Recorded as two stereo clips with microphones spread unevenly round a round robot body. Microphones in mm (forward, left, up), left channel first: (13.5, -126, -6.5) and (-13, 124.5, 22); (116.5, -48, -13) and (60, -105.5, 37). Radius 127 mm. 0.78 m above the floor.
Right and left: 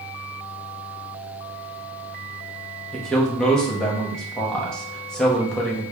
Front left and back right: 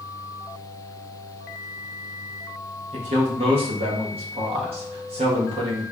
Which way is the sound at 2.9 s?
165° right.